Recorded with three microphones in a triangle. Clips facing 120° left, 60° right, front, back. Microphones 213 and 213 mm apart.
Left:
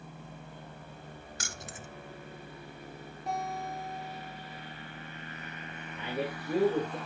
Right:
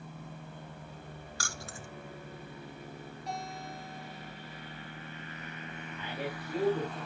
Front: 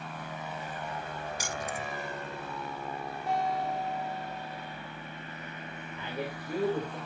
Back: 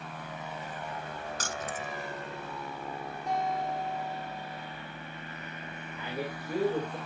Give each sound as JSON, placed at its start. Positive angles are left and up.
{"t": 1.4, "sound": "keys jangling", "azimuth_deg": 70, "distance_m": 0.8}
{"t": 3.3, "sound": "a guitar", "azimuth_deg": 85, "distance_m": 9.5}
{"t": 6.0, "sound": "a man speaking", "azimuth_deg": 100, "distance_m": 6.5}